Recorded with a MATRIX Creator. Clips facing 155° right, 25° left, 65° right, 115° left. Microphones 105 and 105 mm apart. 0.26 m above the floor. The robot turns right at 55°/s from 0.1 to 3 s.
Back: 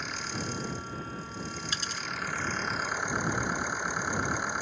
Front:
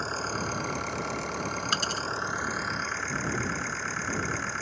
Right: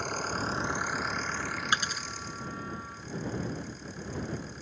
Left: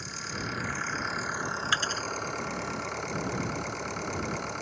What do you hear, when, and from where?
0.0 s an engine running: 30° right; by 4.6 s 130° left
1.7 s a dropped coin: 5° left; by 2.1 s 25° left